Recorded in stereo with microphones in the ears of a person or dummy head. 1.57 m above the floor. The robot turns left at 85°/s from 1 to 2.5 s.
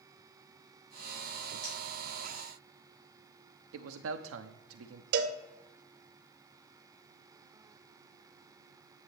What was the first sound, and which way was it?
Cutlery clinking, 65° right (ahead or behind).